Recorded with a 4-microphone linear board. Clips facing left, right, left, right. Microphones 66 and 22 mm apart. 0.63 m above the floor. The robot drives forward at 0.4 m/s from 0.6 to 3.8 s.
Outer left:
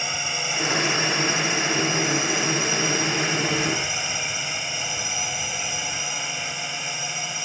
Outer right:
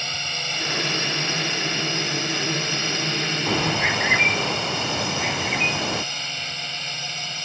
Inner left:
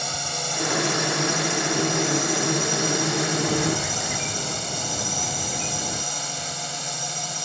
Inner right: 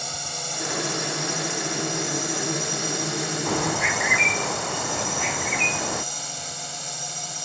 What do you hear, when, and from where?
0.0 s a drone: 10° left (ahead or behind)
3.5 s a bird: 70° right (ahead or behind)